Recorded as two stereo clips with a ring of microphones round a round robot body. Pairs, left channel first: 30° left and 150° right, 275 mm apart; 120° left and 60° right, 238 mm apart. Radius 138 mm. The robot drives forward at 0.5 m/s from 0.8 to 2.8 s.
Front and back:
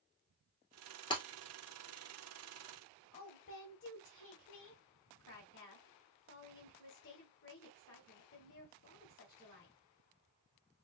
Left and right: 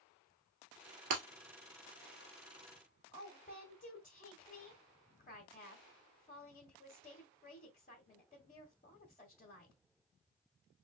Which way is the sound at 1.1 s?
45° right.